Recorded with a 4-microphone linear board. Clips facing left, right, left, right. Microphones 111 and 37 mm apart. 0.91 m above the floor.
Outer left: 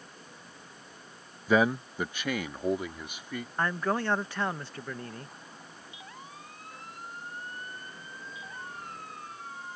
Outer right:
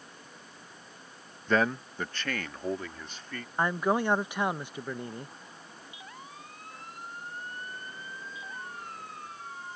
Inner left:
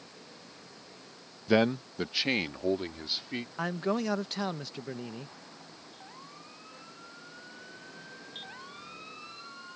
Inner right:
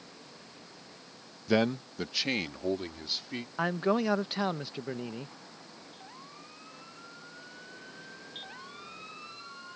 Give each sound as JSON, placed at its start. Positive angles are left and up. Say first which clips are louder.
{"t": 1.5, "sound": "a man speaking", "louder": "outer left 2 dB, inner left 2 dB", "side_deg": 10}
{"t": 3.6, "sound": "a man speaking", "louder": "outer right 3 dB, inner right 3 dB", "side_deg": -15}